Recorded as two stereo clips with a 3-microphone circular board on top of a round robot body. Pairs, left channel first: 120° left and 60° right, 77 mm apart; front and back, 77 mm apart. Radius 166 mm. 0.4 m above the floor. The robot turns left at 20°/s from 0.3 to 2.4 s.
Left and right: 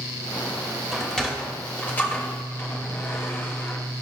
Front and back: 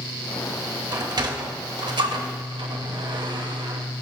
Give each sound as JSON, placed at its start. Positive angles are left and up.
{"t": 0.9, "sound": "a sliding door", "azimuth_deg": -150, "distance_m": 1.2}